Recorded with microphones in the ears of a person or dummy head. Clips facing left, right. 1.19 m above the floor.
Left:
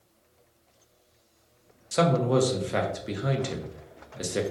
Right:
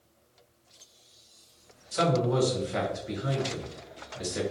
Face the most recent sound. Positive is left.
turn(degrees=55)  # may be behind; listen again after turning